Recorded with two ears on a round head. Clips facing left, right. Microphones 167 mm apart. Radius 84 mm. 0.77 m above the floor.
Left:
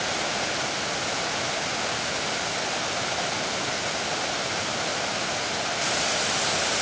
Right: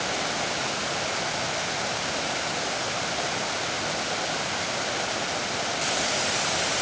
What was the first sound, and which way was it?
Only background noise.